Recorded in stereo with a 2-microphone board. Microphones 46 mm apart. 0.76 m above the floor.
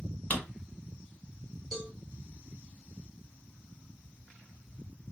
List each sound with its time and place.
0.3 s a drawer: 35° left (ahead or behind), 0.9 m
1.7 s a cowbell: centre (ahead or behind), 2 m